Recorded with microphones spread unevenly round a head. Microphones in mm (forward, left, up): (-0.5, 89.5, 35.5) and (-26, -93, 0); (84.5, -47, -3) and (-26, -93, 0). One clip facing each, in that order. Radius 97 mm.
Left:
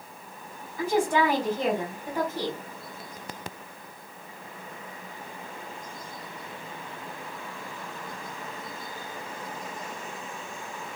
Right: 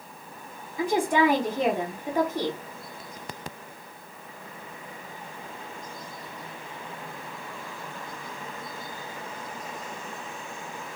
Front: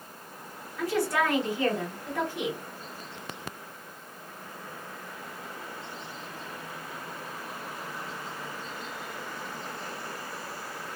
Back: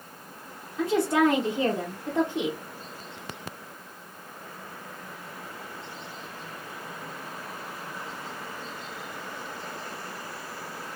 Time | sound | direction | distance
0.8 | a woman speaking | 125° right | 0.9 m